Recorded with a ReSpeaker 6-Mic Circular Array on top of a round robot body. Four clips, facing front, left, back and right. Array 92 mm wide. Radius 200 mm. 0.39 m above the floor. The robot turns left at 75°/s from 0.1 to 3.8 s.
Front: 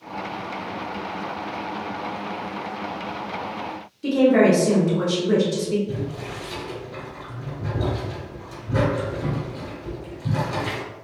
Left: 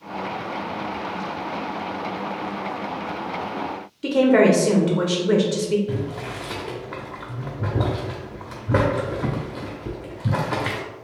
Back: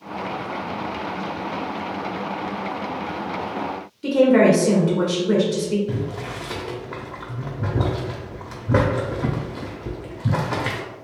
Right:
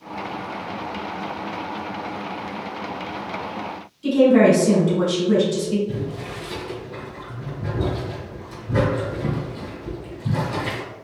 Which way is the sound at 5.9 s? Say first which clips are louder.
Left 1 dB, back 2 dB; 135° left.